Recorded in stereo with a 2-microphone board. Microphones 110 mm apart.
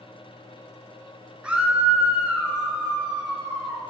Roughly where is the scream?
Centre.